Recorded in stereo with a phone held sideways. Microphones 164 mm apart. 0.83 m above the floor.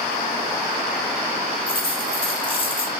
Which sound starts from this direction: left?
A dropped coin, at 1.7 s.